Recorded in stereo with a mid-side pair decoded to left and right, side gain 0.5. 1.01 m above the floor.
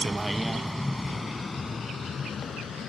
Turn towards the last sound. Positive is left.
turn(degrees=50)